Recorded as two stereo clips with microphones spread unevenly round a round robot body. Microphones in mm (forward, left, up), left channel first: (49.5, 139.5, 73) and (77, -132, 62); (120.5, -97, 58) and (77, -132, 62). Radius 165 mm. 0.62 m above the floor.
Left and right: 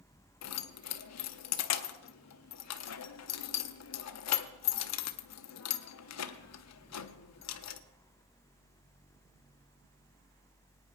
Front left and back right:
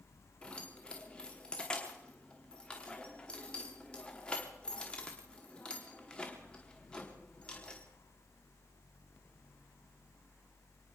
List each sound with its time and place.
0.4 s keys jangling: 110° left, 0.9 m